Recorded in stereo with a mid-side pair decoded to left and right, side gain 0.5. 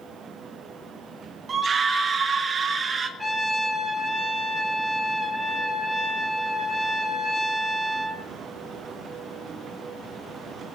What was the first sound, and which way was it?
A scream, 40° right.